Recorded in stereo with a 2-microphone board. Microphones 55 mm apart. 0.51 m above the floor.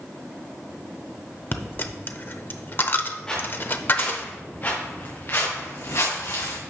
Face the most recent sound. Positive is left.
turn(degrees=75)  # may be behind; listen again after turning